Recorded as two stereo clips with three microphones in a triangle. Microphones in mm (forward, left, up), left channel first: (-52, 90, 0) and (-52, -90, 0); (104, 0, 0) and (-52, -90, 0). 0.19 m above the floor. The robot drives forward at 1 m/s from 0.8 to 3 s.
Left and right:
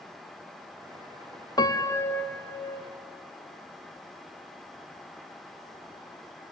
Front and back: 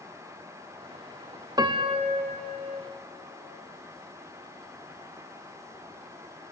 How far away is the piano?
About 0.7 m.